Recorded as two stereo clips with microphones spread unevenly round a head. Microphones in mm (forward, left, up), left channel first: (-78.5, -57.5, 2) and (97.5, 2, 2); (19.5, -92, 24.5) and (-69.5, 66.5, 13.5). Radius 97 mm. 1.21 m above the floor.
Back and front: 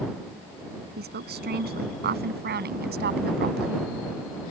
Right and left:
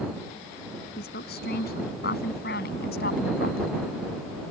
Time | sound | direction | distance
1.0 | a woman speaking | 15° right | ?